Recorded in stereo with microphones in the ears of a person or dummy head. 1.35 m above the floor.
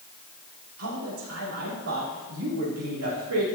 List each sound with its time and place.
0.8 s a man speaking: 90° right, 3.5 m